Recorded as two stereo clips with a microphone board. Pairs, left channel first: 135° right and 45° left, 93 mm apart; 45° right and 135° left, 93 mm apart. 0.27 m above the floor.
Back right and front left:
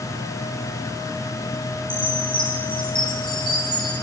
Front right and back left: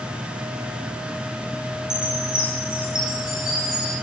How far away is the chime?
About 2.5 m.